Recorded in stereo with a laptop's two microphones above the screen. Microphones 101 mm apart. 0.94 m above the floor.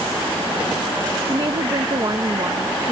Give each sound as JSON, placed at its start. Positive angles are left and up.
{"t": 1.3, "sound": "a woman speaking", "side_deg": -50}